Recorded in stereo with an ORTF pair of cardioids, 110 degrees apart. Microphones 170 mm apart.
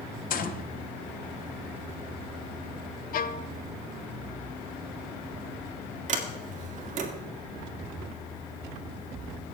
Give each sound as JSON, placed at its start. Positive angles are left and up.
{"t": 0.3, "sound": "a gunshot", "azimuth_deg": 55, "distance_m": 0.8}
{"t": 3.1, "sound": "a violin", "azimuth_deg": 60, "distance_m": 0.7}
{"t": 6.1, "sound": "a sliding door", "azimuth_deg": -45, "distance_m": 2.0}